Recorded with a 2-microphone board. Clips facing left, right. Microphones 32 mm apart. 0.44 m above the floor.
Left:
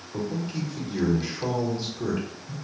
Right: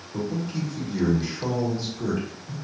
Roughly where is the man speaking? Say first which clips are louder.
Right 1 dB; centre.